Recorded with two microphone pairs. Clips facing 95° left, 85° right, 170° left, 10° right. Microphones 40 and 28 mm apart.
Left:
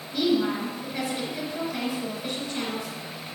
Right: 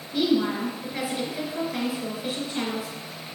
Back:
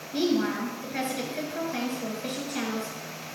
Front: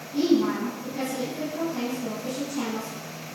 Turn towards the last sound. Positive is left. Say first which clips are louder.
# right 1 dB, front 3 dB
turn(degrees=-160)